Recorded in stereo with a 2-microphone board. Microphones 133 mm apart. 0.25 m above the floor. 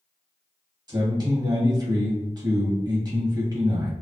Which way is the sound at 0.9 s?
35° right (ahead or behind).